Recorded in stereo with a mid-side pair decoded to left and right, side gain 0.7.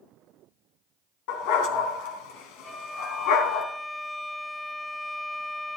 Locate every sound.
1.3 s a dog barking: 70° left, 3 m
2.6 s a violin: 10° left, 1.4 m